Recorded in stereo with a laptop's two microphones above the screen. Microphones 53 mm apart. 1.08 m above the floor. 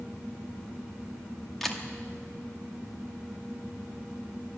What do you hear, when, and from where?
1.6 s a camera shutter: 5° left (ahead or behind), 0.9 m